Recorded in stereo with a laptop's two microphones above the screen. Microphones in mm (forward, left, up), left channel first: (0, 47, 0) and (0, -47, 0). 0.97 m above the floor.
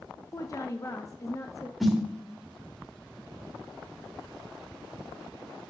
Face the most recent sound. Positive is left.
turn(degrees=0)  # may be behind; listen again after turning